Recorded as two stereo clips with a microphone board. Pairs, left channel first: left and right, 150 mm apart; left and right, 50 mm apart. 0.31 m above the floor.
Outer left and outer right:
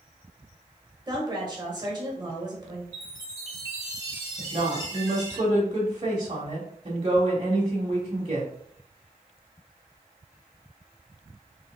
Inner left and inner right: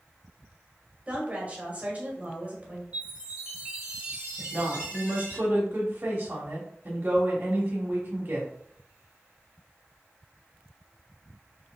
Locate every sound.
1.1 s a woman speaking: 30° right (ahead or behind), 1.6 m
2.9 s a chime: 25° right (ahead or behind), 1.9 m
4.4 s a woman speaking: 40° right (ahead or behind), 1.1 m